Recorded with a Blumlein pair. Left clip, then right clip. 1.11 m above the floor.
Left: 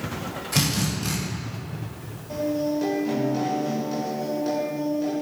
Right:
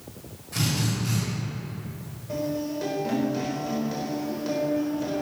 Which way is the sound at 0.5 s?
60° left.